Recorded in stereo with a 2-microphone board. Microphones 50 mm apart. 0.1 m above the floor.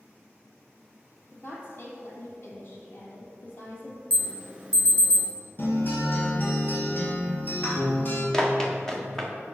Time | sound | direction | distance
1.3 | a woman speaking | 50° left (ahead or behind) | 2 m
4.1 | an alarm | 25° right (ahead or behind) | 1.5 m
5.6 | a guitar | 40° left (ahead or behind) | 2.5 m
8.3 | running footsteps | 10° left (ahead or behind) | 1.7 m